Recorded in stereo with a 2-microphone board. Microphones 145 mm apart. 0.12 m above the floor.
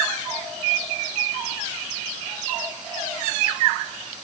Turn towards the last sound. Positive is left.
No sound to turn to.